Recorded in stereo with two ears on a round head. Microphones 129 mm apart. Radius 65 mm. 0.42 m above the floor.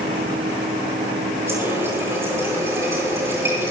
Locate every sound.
1.5 s a running tap: 20° right (ahead or behind), 7.5 m